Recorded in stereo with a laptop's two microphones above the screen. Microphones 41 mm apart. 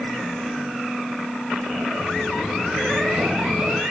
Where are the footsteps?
10° left (ahead or behind), 1.9 m; by 3.8 s 30° right (ahead or behind), 1.3 m.